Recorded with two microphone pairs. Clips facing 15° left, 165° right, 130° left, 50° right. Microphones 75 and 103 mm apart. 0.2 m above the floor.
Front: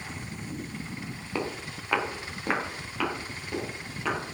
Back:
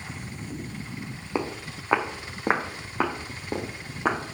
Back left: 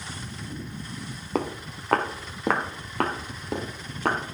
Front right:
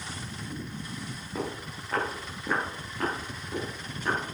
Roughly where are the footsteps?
Behind left.